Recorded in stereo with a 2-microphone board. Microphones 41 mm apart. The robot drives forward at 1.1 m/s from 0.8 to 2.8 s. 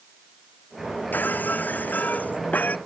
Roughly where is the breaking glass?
Left.